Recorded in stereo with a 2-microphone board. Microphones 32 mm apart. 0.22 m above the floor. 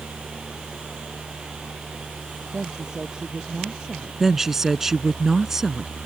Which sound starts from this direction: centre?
A woman speaking, at 4.2 s.